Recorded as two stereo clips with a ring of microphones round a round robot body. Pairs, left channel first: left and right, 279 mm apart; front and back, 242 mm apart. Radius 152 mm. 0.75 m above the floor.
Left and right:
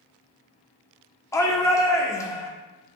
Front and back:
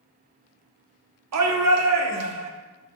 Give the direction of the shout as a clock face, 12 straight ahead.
6 o'clock.